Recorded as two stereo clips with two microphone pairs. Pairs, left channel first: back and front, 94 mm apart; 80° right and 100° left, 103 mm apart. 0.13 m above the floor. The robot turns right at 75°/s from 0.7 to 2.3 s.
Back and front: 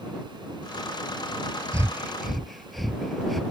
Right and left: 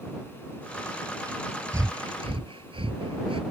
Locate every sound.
1.7 s breathing: 45° left; by 3.4 s 90° left